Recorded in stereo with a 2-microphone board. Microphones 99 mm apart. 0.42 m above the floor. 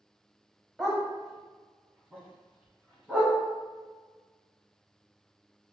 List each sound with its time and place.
0.8 s a dog barking: 5° right (ahead or behind), 0.9 m; by 3.4 s 10° left (ahead or behind), 2.5 m